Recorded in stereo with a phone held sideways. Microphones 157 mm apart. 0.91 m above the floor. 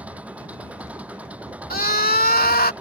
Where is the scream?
70° left (ahead or behind).